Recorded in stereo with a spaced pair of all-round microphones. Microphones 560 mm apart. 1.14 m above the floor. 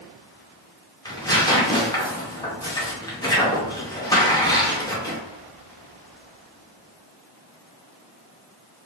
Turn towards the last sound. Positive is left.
turn(degrees=5)  # may be behind; listen again after turning